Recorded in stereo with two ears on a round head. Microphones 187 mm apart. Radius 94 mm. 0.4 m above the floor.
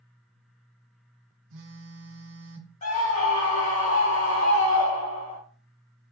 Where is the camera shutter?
No camera shutter in this recording.